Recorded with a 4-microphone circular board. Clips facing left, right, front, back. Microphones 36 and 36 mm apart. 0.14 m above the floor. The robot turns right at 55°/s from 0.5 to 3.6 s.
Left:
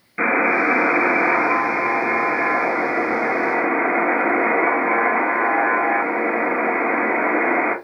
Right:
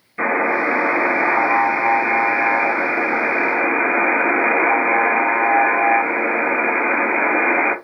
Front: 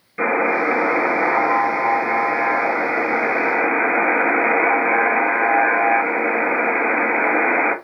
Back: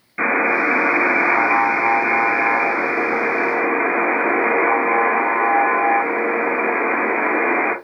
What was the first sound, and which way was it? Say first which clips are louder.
A buzzer: left 1 dB, back 1 dB; 120° left.